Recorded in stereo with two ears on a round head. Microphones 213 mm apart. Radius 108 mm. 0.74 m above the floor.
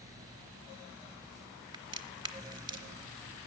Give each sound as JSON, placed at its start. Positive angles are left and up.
{"t": 1.7, "sound": "a crack", "side_deg": -20, "distance_m": 0.8}